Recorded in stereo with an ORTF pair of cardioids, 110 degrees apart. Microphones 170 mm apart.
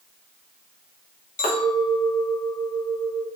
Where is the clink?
50° left, 1.0 m.